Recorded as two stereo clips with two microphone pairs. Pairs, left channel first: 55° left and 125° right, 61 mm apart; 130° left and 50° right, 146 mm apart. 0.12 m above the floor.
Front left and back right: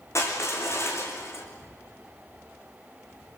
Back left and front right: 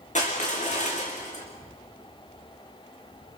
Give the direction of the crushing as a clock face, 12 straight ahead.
9 o'clock.